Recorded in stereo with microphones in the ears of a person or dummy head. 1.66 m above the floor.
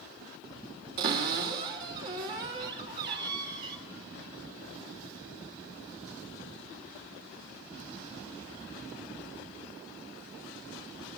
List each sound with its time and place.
1.0 s a cupboard door: 60° right (ahead or behind), 1.8 m